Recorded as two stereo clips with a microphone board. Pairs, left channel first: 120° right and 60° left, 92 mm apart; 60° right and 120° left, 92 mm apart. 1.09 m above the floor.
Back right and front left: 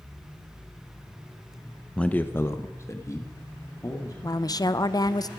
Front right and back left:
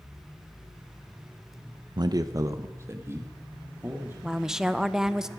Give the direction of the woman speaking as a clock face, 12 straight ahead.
5 o'clock.